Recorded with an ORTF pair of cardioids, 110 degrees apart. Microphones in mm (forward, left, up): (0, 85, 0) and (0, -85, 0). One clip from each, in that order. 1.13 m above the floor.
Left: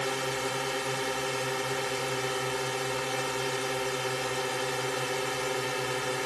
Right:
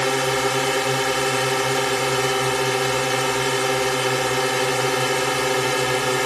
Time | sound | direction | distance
0.0 | a drone | 60° right | ?